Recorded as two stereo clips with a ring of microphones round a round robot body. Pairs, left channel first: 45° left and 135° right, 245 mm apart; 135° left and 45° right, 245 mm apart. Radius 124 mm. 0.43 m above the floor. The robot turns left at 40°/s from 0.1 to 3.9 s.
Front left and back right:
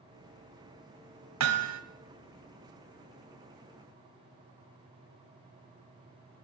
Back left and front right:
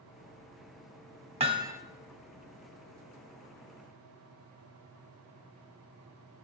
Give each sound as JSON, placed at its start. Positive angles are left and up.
{"t": 1.4, "sound": "hammering", "azimuth_deg": -110, "distance_m": 1.0}